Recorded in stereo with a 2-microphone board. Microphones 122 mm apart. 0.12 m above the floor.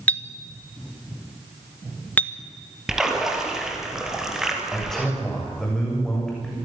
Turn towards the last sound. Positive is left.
turn(degrees=5)  # may be behind; listen again after turning